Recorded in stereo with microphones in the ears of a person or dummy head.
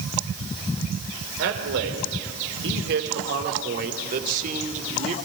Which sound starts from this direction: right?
A man speaking, at 1.4 s.